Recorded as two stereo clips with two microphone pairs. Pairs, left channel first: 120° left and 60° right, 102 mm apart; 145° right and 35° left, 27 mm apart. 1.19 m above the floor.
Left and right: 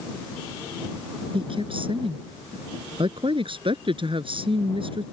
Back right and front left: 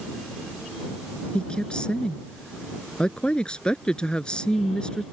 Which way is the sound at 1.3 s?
90° right.